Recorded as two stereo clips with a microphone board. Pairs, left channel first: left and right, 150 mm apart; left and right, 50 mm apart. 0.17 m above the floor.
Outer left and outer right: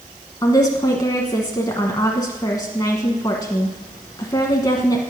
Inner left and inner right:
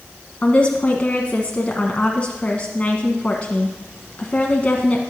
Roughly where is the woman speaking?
Left.